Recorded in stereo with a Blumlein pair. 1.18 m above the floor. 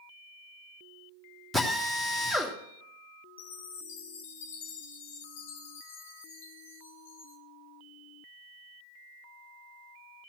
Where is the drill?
10° left, 2 m.